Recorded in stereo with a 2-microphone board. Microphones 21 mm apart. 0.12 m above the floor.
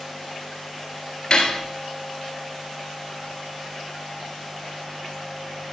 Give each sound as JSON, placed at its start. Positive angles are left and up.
{"t": 1.3, "sound": "cutlery clinking", "side_deg": 45, "distance_m": 1.5}